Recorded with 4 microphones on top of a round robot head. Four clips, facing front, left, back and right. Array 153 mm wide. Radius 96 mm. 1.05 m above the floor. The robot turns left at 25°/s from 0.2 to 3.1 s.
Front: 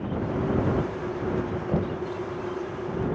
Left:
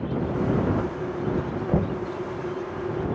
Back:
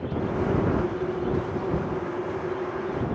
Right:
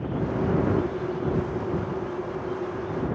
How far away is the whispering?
No whispering in this recording.